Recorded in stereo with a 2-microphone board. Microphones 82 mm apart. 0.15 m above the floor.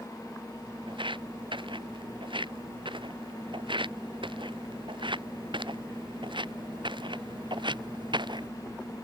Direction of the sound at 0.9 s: 85° right.